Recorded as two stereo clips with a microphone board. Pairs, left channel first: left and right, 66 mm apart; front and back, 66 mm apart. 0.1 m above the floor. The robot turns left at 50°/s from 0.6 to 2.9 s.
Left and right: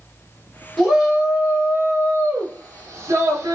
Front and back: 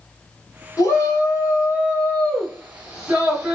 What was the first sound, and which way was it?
A shout, 5° left.